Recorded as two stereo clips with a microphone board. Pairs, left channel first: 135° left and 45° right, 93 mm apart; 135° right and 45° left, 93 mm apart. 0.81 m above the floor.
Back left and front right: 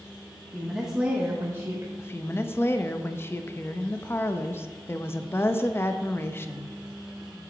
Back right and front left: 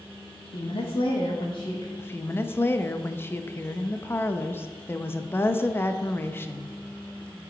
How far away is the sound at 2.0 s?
About 0.5 m.